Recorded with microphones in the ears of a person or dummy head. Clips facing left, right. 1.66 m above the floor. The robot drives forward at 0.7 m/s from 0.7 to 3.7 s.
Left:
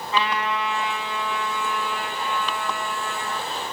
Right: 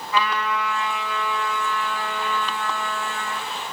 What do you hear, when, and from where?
0.1 s a trumpet: 25° left (ahead or behind), 3.5 m; by 3.5 s 15° left (ahead or behind), 5 m